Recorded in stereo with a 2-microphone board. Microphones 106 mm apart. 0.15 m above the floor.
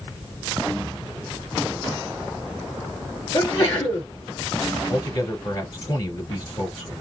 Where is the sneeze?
35° left (ahead or behind), 3 m.